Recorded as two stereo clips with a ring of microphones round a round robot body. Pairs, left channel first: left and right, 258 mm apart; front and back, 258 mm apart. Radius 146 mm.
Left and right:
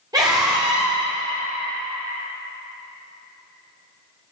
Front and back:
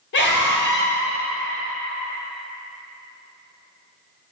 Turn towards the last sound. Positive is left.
turn(degrees=-20)